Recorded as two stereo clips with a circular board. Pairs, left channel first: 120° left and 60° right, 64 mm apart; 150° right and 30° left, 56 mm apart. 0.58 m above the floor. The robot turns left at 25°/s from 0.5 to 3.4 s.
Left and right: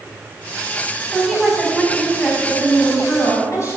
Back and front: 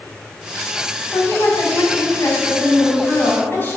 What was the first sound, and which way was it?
A woman speaking, 145° right.